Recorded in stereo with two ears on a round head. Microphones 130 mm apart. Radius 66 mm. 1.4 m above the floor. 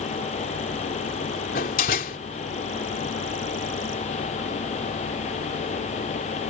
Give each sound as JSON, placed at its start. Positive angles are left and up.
{"t": 1.6, "sound": "a door slam", "side_deg": 65}